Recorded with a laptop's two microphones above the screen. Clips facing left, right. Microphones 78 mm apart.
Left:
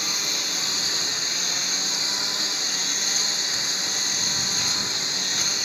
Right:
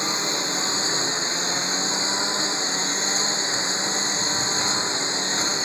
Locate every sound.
0.0 s a lawn mower: 30° right (ahead or behind)